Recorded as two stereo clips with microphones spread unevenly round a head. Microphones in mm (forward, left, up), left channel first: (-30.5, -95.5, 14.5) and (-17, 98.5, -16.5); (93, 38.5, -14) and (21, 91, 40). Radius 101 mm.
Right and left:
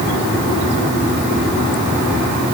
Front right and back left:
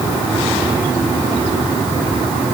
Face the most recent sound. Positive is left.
No sound to turn to.